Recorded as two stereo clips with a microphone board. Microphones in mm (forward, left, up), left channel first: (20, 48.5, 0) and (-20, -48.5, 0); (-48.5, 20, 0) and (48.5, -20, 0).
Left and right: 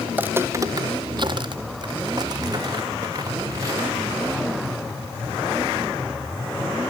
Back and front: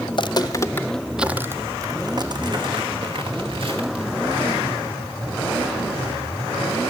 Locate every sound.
0.1 s footsteps: 175° left, 0.9 m; by 4.1 s 55° right, 3 m